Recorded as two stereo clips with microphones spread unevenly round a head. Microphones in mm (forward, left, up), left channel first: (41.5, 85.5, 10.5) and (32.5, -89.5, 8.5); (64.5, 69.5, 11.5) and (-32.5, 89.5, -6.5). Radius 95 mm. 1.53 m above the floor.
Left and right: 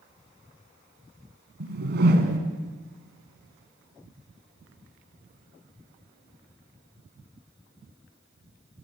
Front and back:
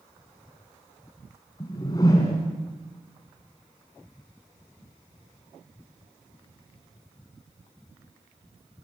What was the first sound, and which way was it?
A whoosh, 70° right.